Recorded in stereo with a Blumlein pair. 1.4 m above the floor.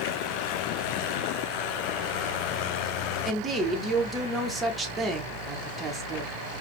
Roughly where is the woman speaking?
Ahead.